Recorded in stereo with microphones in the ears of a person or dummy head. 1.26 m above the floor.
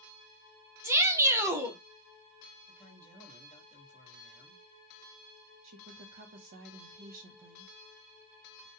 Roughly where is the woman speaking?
Right.